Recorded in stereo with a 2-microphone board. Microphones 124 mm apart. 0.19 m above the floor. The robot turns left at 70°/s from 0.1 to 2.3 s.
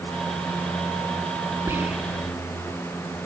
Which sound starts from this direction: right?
Whispering, at 1.7 s.